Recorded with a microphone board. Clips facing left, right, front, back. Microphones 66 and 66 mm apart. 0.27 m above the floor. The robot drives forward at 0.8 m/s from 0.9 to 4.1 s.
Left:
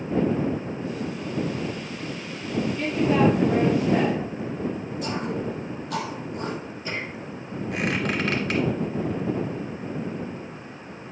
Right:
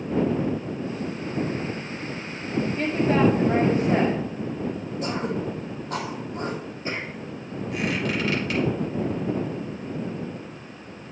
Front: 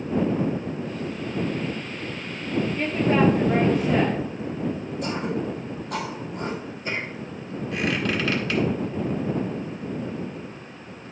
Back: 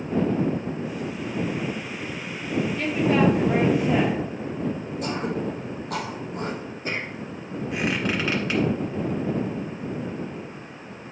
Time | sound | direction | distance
2.8 | a woman speaking | 55° right | 1.8 m
5.0 | throat clearing | 145° right | 2.5 m
7.7 | a squeak | 110° left | 1.8 m